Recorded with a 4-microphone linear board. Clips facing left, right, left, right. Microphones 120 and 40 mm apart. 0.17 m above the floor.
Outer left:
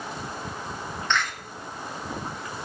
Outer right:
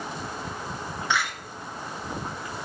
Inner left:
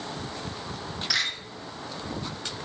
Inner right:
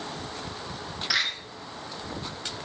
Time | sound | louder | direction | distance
1.1 | a door slam | even, inner right 1 dB | 10° right (ahead or behind) | 1.7 m